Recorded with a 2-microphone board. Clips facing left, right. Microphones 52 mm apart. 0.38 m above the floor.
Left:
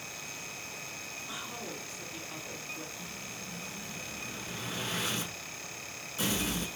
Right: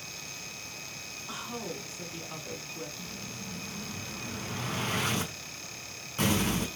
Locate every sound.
1.3 s a woman speaking: 30° right (ahead or behind), 4 m
3.0 s an explosion: 55° right (ahead or behind), 4.5 m